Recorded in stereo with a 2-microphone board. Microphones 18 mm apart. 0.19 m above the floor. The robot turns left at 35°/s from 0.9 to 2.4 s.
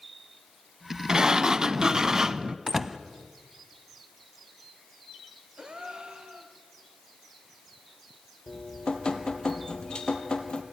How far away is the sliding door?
About 0.9 m.